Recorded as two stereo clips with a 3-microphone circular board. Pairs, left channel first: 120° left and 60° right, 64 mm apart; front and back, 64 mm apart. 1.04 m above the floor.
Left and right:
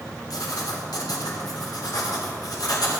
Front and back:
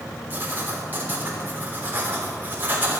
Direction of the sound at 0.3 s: 120° left.